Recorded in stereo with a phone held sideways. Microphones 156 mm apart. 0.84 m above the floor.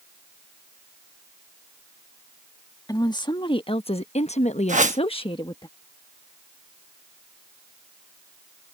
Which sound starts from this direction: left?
A woman speaking, at 2.9 s.